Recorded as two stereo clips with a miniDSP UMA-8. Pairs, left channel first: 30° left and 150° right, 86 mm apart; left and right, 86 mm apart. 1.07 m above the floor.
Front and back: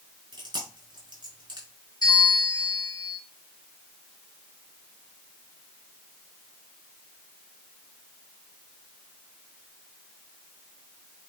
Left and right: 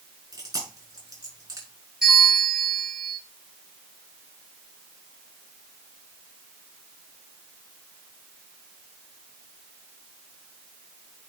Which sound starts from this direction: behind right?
Chewing, at 0.3 s.